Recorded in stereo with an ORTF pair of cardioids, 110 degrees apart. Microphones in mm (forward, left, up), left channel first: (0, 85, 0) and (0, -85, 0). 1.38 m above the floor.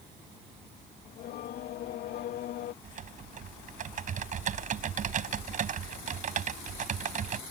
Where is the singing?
70° left.